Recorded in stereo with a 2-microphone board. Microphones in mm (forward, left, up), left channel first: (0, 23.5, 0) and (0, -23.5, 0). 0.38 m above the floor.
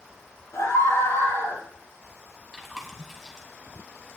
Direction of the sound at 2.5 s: 5° left (ahead or behind).